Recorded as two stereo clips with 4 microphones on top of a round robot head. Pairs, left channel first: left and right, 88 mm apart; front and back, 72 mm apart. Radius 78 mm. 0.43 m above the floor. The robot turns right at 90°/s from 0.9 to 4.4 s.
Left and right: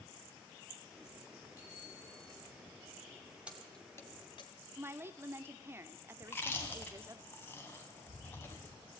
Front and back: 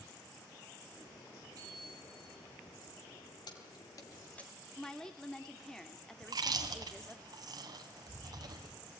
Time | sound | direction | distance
1.6 | a bicycle bell | 150° left | 6 m
3.5 | keys jangling | 15° right | 2.5 m
4.8 | a woman speaking | 70° right | 0.9 m
6.2 | chewing | 160° left | 2 m